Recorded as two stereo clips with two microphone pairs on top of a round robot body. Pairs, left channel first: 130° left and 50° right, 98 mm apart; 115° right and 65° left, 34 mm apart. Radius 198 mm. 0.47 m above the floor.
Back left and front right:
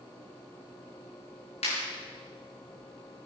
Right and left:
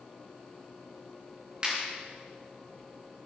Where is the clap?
130° left, 5 m.